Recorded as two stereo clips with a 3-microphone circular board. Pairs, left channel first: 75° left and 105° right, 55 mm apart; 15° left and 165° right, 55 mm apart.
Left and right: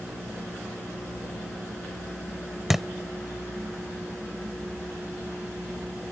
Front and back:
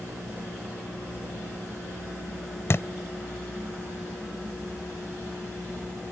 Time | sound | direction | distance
2.7 | a thud | 20° right | ?